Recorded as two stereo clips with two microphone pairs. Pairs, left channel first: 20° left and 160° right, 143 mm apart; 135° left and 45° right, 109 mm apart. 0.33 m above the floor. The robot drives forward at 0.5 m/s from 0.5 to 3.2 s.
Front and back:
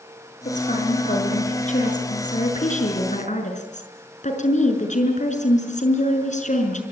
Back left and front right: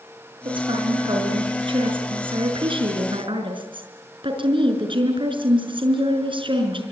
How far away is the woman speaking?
About 6.5 m.